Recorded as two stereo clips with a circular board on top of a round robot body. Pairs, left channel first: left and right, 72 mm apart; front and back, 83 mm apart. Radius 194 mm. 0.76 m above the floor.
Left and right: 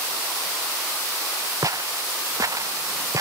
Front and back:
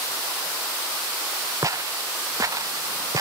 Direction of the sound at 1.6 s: 130° right.